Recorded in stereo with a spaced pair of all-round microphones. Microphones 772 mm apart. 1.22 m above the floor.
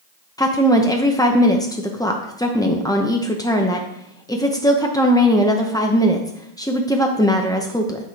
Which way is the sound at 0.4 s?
5° left (ahead or behind).